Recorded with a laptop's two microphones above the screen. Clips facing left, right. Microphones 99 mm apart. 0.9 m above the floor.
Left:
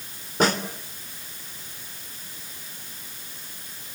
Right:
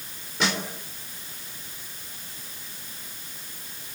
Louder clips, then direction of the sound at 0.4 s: Left 5 dB; 45° left (ahead or behind).